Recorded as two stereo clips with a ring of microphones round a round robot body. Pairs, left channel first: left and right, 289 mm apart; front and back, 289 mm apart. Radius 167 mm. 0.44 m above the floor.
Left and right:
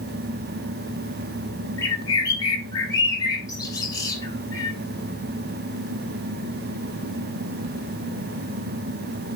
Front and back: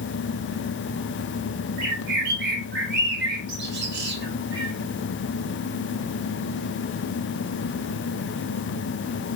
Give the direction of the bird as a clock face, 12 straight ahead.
7 o'clock.